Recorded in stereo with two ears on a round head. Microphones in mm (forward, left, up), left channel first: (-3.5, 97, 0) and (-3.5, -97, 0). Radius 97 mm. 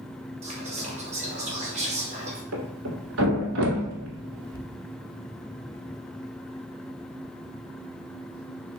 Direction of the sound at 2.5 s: 65° right (ahead or behind).